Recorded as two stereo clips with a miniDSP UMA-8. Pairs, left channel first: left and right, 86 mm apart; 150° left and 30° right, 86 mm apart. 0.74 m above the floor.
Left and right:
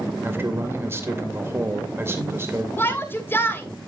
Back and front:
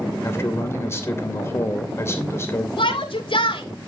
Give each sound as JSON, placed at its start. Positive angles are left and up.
{"t": 0.2, "sound": "a man speaking", "azimuth_deg": -150, "distance_m": 2.5}
{"t": 2.8, "sound": "a shout", "azimuth_deg": 155, "distance_m": 2.5}